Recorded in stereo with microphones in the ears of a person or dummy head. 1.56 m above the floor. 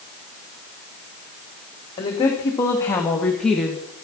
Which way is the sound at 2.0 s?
25° left (ahead or behind).